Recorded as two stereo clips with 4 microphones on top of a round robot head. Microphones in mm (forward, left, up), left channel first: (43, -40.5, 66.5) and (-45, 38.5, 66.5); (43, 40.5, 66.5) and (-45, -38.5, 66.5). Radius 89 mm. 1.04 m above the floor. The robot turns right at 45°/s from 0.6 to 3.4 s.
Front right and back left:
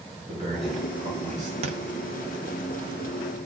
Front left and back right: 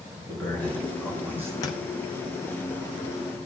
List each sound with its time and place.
0.3 s a man speaking: 115° left, 5.5 m; by 1.5 s 155° left, 5.5 m
1.6 s a thud: 100° left, 0.5 m; by 1.8 s 110° left, 0.5 m